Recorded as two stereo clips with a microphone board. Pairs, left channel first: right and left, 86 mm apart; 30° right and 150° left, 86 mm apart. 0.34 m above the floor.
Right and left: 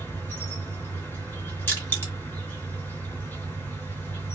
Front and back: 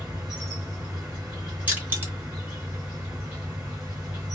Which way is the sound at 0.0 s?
135° right.